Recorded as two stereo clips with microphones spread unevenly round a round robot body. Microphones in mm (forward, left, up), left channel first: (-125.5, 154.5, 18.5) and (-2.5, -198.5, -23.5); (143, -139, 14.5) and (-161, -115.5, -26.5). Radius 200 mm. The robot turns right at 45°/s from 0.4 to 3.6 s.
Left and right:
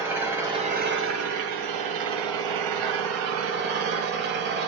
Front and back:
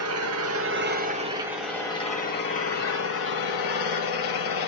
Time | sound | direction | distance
0.0 | an engine running | 155° right | 2.0 m